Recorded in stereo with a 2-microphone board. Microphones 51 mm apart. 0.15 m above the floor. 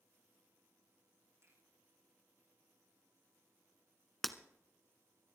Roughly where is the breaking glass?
Centre.